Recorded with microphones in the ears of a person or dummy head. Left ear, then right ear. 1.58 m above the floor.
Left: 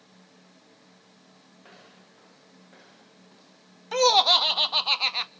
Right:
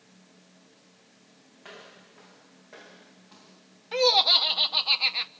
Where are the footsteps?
10° right (ahead or behind), 8.5 m; by 3.6 s 15° right (ahead or behind), 9.5 m.